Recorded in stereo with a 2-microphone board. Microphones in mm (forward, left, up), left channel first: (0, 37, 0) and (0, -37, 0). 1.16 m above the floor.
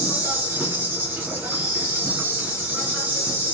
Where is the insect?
25° right (ahead or behind), 1.7 m.